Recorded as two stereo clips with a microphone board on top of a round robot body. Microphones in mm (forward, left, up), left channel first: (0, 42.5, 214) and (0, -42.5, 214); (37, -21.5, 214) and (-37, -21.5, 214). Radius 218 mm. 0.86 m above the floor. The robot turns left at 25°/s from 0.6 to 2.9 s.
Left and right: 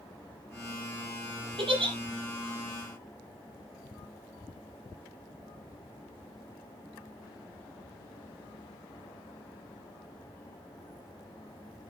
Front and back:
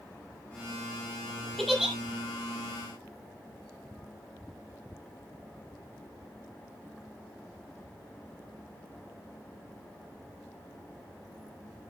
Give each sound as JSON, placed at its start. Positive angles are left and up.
{"t": 1.6, "sound": "a giggle", "azimuth_deg": -85, "distance_m": 6.0}